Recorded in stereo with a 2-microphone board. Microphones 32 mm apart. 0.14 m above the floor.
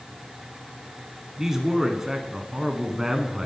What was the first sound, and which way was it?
A man speaking, 15° right (ahead or behind).